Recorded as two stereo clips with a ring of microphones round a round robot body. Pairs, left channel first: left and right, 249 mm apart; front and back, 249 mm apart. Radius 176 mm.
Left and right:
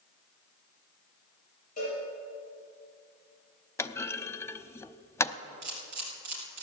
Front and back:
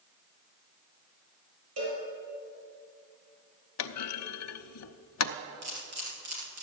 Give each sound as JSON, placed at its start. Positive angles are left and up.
{"t": 1.8, "sound": "a cowbell", "azimuth_deg": 160, "distance_m": 6.0}
{"t": 3.8, "sound": "a clunk", "azimuth_deg": 10, "distance_m": 0.7}
{"t": 5.6, "sound": "a camera shutter", "azimuth_deg": -135, "distance_m": 3.5}